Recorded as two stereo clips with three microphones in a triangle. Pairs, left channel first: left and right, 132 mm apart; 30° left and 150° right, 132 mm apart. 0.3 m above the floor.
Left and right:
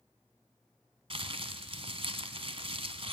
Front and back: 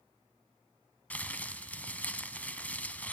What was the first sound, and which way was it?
Crumpling, 50° right.